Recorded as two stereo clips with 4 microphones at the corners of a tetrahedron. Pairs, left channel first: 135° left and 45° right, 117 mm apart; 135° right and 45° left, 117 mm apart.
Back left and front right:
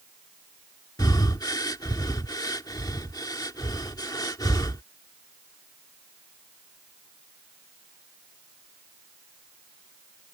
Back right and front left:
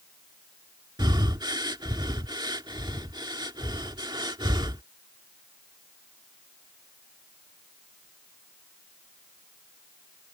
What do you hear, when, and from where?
1.0 s breathing: 85° left